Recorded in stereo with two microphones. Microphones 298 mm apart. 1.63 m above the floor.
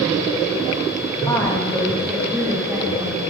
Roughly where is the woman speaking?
Centre.